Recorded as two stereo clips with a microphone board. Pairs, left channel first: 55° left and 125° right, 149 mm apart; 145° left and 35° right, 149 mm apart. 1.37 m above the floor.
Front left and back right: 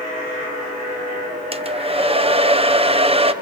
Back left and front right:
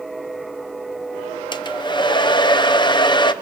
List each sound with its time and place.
1.5 s a hair dryer: 160° right, 0.7 m